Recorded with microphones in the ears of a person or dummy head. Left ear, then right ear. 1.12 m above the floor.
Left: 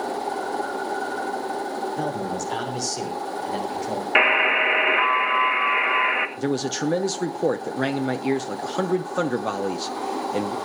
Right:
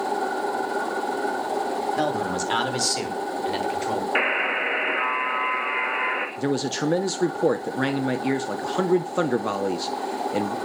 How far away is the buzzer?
About 1.8 m.